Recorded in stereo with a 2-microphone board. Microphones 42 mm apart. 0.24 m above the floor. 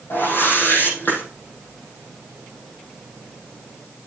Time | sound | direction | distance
0.1 | a whoosh | 55° left (ahead or behind) | 5.5 m